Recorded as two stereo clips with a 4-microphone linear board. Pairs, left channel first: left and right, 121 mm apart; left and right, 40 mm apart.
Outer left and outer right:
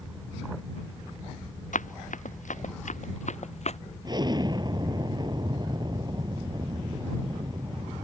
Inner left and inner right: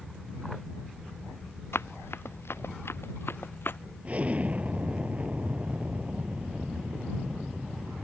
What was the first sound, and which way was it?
Running footsteps, 80° left.